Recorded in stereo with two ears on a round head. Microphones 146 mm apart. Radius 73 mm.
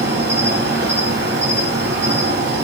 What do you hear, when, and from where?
0.0 s an insect: 15° right (ahead or behind), 8 m